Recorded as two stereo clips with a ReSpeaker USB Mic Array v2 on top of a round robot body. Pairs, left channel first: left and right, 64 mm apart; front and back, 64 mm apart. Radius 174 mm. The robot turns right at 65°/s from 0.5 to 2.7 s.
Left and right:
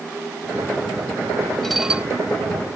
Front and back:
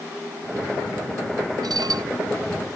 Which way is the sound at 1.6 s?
175° left.